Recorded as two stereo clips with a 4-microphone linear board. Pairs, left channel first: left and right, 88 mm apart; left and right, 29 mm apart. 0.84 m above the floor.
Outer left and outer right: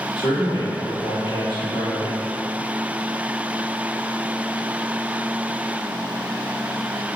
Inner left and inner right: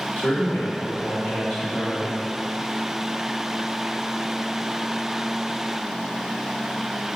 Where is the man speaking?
70° left (ahead or behind), 1.4 m.